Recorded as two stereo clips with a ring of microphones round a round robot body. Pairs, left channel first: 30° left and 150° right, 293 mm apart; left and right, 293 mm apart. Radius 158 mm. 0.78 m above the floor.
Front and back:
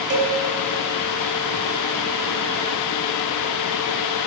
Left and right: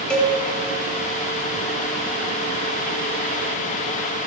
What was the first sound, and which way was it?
A cowbell, 175° left.